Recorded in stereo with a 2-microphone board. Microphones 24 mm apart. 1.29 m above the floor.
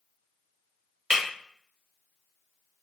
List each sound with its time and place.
1.1 s breaking glass: 25° right (ahead or behind), 1.1 m